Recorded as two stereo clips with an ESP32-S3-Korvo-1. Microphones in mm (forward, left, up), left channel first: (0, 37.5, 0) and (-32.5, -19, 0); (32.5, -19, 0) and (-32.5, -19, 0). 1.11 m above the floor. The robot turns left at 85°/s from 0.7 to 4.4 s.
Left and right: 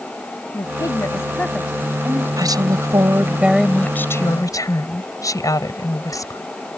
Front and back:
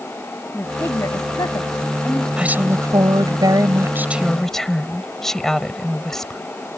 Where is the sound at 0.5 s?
55° left; by 2.3 s 75° right.